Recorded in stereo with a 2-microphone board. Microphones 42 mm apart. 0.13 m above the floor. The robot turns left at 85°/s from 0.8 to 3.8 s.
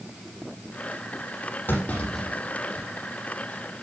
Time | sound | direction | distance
1.7 | a clunk | 50° left (ahead or behind) | 6 m